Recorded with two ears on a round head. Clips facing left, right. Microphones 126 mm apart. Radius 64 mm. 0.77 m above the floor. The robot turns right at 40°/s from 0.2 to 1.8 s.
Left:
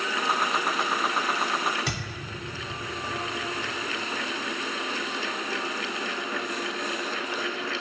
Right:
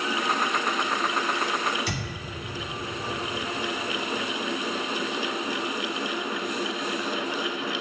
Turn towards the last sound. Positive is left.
turn(degrees=55)  # may be behind; listen again after turning